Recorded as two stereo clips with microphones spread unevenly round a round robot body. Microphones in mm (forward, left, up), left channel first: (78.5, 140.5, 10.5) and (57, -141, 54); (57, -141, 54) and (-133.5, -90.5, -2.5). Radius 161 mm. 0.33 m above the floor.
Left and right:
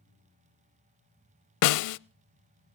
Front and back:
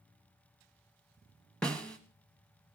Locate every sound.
1.6 s a snare drum: 75° left, 0.5 m